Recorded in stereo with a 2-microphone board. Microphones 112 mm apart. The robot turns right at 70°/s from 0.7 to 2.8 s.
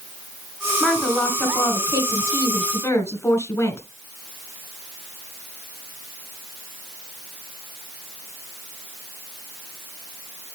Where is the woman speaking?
10° right, 1.8 m; by 3.8 s 130° left, 1.8 m.